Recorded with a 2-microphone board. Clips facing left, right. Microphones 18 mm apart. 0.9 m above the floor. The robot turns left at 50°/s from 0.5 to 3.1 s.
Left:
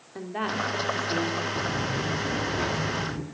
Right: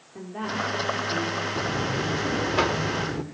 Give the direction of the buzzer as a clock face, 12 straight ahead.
1 o'clock.